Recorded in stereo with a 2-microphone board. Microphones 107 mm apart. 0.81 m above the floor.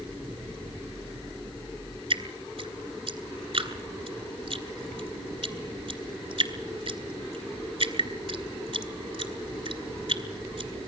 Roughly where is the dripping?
Right.